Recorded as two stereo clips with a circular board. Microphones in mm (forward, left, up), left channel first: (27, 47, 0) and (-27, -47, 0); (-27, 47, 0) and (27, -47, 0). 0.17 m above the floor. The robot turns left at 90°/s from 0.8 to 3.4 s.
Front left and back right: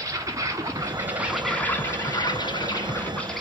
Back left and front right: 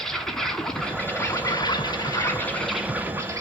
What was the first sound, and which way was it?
An insect, 155° right.